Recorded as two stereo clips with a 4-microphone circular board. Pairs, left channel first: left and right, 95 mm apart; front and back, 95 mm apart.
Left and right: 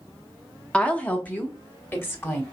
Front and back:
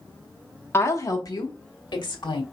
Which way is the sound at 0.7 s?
25° left.